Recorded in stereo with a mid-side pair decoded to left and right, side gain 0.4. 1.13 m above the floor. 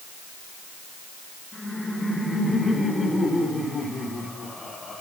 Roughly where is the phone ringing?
No phone ringing in this recording.